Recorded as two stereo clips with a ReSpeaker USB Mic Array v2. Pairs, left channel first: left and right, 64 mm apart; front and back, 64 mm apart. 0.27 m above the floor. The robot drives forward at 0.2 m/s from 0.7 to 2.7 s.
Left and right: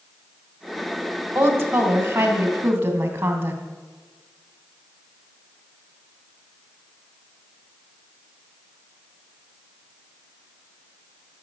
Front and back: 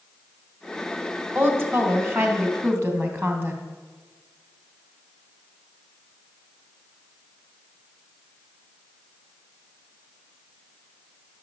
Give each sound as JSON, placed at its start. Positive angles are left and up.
{"t": 1.4, "sound": "a woman speaking", "azimuth_deg": -135, "distance_m": 2.0}